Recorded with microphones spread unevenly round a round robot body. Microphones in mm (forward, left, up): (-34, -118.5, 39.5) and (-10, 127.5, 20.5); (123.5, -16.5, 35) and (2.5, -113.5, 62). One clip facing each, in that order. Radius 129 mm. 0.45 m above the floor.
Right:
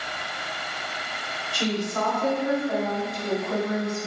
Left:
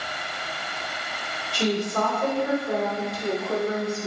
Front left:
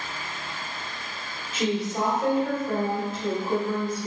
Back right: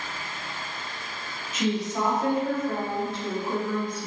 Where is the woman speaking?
90° left, 1.9 m; by 4.1 s 110° left, 3 m.